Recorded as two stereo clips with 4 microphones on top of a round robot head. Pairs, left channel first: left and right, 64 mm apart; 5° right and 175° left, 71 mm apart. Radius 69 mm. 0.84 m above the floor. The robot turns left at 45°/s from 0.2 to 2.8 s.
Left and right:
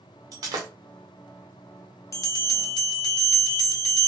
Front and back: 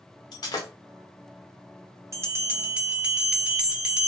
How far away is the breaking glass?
About 0.6 m.